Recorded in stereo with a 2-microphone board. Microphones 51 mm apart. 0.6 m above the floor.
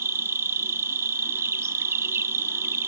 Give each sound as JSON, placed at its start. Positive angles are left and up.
{"t": 0.0, "sound": "an insect", "side_deg": -60, "distance_m": 0.7}